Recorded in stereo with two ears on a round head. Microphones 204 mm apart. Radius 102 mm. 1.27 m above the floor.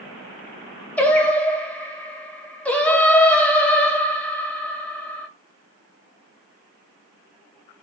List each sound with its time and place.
1.0 s singing: 5° left (ahead or behind), 0.9 m